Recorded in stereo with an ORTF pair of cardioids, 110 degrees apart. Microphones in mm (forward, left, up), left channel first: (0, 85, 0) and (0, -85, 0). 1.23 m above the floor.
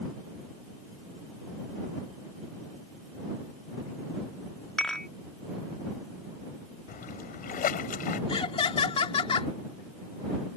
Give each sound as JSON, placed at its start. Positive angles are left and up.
{"t": 4.8, "sound": "dishes clattering", "azimuth_deg": 5}
{"t": 6.9, "sound": "a splash", "azimuth_deg": 55}
{"t": 8.3, "sound": "laughter", "azimuth_deg": 35}